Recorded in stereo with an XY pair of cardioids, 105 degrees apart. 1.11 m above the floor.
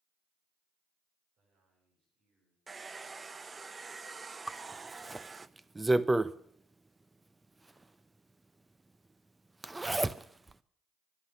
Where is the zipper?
15° right, 0.6 m.